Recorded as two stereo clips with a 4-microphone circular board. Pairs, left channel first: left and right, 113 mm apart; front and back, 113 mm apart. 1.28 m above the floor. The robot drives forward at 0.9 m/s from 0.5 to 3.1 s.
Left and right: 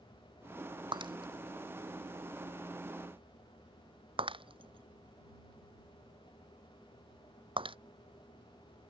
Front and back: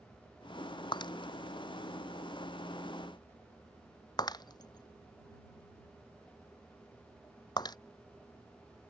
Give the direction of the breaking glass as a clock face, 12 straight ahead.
2 o'clock.